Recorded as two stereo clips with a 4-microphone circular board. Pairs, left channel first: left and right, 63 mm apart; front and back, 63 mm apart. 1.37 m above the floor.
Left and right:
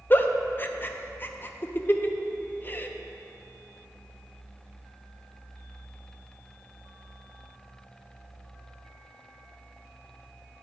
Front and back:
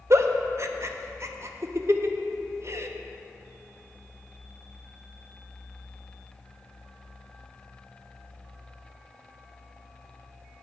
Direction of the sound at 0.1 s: 145° left.